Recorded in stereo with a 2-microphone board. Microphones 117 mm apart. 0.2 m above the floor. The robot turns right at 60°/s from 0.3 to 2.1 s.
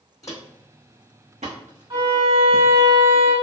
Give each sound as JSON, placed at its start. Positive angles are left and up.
{"t": 0.2, "sound": "footsteps", "side_deg": 30, "distance_m": 0.6}
{"t": 1.9, "sound": "a violin", "side_deg": -45, "distance_m": 1.4}